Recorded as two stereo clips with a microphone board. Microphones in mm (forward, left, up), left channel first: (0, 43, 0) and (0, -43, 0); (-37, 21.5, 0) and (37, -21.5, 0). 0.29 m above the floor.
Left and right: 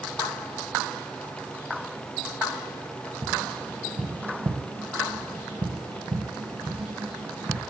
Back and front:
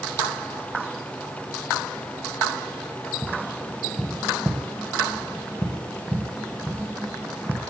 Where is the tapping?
105° right, 1.1 m.